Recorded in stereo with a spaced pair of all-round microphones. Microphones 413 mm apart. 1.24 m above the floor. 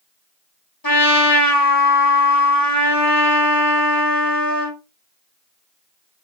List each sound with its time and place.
0.8 s a trumpet: 55° left (ahead or behind), 1.2 m